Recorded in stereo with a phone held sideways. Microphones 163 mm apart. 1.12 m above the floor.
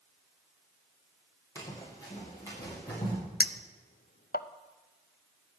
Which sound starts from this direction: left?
A clink, at 3.4 s.